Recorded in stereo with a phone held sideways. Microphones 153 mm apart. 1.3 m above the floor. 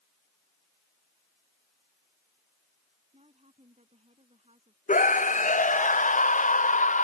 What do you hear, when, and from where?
3.1 s a woman speaking: 45° right (ahead or behind)
4.9 s a scream: 55° left (ahead or behind)